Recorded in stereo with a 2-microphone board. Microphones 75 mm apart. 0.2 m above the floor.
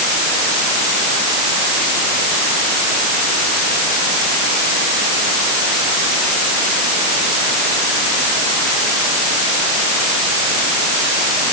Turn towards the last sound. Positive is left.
No sound to turn to.